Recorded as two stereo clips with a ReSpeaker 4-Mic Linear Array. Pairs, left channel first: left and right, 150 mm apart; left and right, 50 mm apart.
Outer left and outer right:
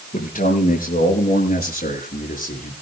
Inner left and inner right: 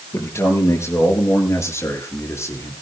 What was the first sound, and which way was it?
A man speaking, 70° left (ahead or behind).